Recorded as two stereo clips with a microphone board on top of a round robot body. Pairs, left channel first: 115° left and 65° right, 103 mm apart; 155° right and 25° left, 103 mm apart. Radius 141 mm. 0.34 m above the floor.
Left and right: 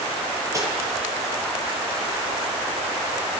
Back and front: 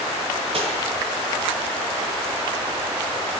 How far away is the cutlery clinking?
About 8 m.